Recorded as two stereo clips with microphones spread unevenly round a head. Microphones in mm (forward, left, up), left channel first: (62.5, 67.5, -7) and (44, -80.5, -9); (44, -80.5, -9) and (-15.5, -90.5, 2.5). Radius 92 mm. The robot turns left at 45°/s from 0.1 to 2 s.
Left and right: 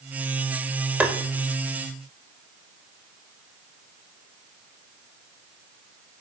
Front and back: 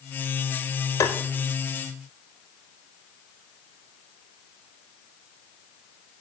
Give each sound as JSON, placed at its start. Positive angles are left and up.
{"t": 1.0, "sound": "tapping", "azimuth_deg": -15, "distance_m": 1.5}